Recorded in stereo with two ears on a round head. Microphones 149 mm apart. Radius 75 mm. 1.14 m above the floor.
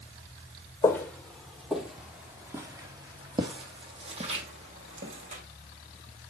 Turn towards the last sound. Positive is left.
turn(degrees=-45)  # may be behind; listen again after turning